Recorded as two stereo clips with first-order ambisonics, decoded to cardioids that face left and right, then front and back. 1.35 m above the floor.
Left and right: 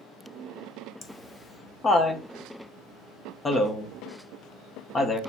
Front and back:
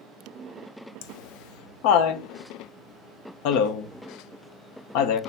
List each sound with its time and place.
1.0 s laughter: 15° left, 1.0 m